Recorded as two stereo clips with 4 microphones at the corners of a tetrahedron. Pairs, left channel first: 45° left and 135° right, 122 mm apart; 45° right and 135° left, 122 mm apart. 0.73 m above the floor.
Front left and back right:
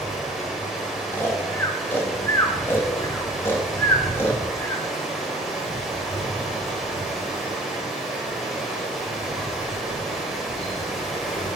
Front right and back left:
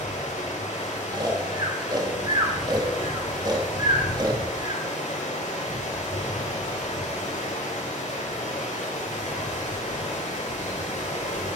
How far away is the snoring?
About 1.2 m.